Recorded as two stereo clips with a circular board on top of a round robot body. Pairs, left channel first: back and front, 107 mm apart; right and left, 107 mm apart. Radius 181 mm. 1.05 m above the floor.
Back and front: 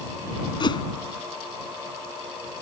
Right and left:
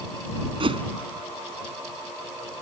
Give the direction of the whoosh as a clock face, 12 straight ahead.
8 o'clock.